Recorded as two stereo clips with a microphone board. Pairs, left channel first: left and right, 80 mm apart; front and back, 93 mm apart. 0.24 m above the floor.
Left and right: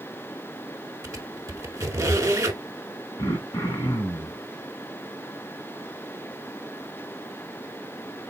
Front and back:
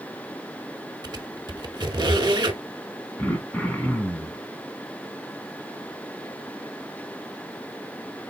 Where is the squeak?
140° right, 0.7 m.